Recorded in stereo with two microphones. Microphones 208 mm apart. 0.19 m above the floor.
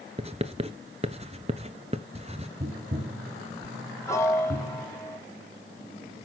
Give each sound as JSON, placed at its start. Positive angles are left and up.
{"t": 0.2, "sound": "writing", "side_deg": -30, "distance_m": 0.8}
{"t": 2.6, "sound": "tapping", "side_deg": -45, "distance_m": 1.4}
{"t": 4.1, "sound": "a piano", "side_deg": 15, "distance_m": 1.1}